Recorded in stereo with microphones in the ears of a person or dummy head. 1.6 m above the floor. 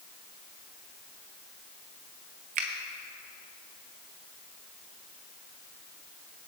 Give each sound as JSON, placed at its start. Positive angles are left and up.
{"t": 2.5, "sound": "a finger snap", "side_deg": -30, "distance_m": 0.7}